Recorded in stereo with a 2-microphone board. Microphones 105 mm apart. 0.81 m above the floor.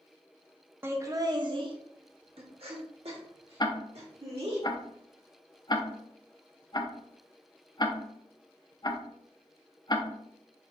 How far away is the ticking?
About 0.5 m.